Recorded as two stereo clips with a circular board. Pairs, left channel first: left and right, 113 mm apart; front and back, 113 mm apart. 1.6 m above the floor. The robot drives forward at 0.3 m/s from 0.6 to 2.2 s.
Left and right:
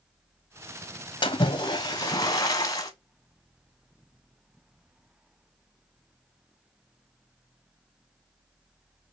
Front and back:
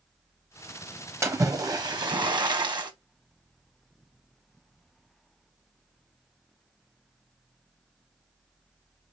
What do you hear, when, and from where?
1.2 s a splash: 120° left, 0.6 m; by 2.9 s 140° left, 0.8 m